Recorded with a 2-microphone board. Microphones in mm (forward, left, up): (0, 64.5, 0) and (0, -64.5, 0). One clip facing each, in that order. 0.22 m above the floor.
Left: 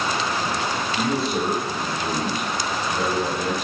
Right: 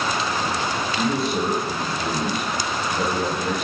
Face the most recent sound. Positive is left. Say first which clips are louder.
# even
turn(degrees=35)  # may be behind; listen again after turning